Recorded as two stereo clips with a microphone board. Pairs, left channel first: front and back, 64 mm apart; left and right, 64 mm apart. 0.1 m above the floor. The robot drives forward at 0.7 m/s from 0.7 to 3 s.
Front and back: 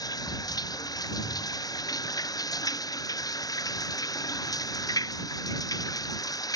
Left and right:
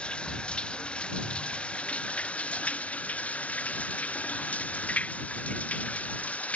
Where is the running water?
15° left; by 6.6 s 20° left.